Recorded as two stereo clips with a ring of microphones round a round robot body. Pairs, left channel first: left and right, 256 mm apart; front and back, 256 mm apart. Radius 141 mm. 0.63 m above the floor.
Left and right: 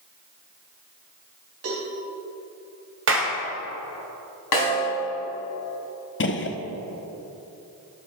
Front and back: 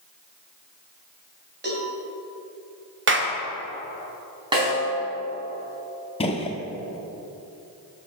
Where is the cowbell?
130° right, 3 m.